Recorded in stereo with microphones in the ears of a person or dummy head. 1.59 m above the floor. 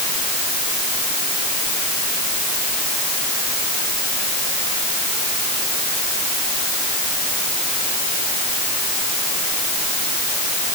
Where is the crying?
No crying in this recording.